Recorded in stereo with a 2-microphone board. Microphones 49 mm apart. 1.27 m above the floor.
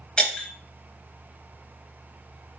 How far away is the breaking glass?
About 2.5 m.